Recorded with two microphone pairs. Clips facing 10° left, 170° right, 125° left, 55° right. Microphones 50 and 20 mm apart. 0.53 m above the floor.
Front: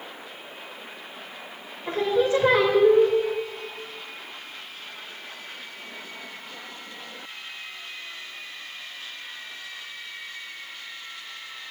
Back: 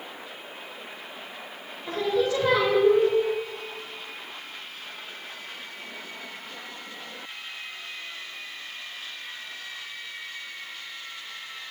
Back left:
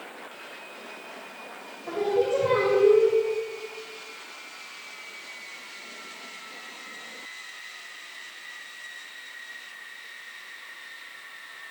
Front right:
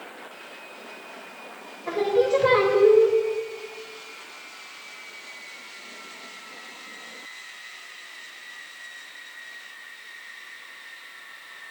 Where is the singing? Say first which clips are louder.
Front 3 dB, front right 3 dB; 50° right, 2.5 m.